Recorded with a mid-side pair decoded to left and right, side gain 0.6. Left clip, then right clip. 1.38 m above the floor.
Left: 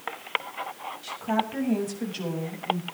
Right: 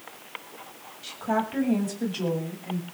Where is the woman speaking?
10° right, 7 m; by 2.8 s straight ahead, 8.5 m.